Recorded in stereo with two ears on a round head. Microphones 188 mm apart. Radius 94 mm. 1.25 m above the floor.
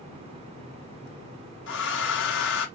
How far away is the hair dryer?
About 1.2 m.